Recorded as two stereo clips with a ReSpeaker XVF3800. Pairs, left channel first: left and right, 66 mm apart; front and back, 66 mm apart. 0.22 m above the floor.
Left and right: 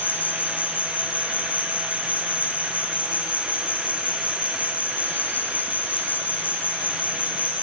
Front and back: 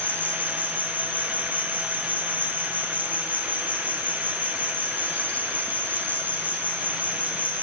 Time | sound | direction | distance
0.0 | an insect | 50° left | 2.5 m